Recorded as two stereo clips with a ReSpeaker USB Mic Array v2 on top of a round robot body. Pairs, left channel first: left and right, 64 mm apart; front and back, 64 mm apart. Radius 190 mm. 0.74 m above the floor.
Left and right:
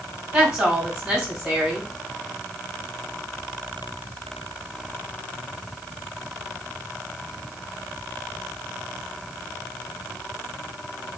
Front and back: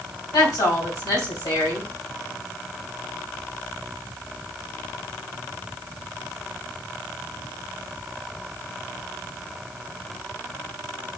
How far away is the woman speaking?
About 2.5 m.